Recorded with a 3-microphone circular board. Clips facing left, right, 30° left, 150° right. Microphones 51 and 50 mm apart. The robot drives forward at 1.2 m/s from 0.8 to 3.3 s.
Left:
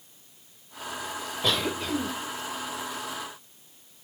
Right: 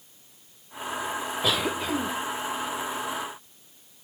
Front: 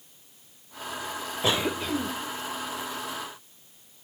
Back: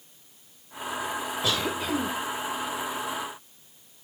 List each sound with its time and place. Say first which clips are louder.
1.4 s a cough: even, front 3 dB; 10° right, 1.0 m; by 2.1 s 155° right, 0.9 m